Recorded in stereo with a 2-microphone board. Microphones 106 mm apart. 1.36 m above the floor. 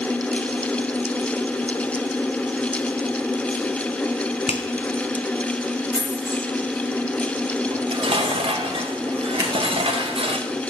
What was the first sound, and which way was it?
A finger snap, 70° left (ahead or behind).